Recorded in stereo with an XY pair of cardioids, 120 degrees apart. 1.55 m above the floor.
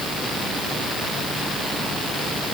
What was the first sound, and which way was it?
Only background noise.